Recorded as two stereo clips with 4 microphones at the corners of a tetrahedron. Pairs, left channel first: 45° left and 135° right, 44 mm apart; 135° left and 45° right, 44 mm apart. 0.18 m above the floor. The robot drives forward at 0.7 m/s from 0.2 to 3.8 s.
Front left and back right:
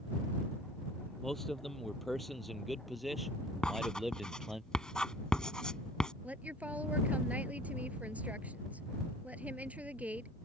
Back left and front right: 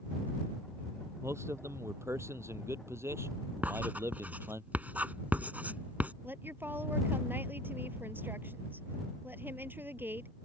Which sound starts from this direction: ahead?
Writing, at 3.6 s.